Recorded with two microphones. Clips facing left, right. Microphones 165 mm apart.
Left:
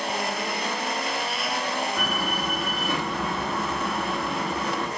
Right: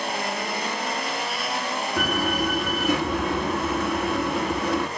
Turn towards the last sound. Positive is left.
turn(degrees=-80)